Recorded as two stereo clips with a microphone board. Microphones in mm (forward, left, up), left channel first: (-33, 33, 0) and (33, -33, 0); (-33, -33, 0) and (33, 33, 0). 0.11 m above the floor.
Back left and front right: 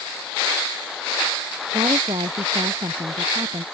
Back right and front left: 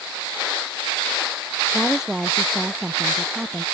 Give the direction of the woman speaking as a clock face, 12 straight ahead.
1 o'clock.